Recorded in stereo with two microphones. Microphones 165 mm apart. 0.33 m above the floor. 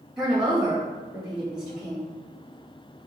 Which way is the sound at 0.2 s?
5° right (ahead or behind).